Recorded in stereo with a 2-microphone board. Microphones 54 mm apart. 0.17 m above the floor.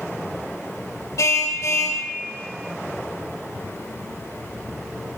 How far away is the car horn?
About 4 m.